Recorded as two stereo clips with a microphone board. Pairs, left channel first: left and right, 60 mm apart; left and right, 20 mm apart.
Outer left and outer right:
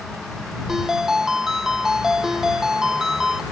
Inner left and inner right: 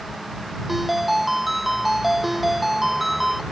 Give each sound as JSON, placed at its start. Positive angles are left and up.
{"t": 0.7, "sound": "a ringtone", "side_deg": -10}